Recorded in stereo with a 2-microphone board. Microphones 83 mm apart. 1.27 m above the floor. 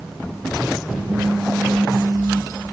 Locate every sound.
1.1 s a phone buzzing: 65° right (ahead or behind), 1.8 m